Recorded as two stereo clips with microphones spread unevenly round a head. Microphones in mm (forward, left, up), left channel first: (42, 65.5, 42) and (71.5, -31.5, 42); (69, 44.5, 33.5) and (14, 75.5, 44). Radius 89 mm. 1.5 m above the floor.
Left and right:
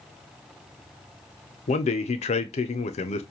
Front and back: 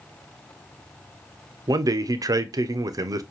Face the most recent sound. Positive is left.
turn(degrees=120)